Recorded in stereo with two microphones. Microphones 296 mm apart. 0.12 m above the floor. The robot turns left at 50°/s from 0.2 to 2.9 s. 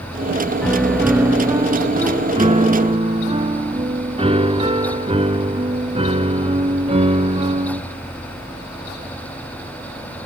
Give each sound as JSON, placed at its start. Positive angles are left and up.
{"t": 0.6, "sound": "a piano", "side_deg": 5, "distance_m": 1.4}